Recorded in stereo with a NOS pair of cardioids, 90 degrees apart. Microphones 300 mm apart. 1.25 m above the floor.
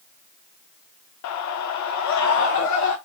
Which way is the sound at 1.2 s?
65° left.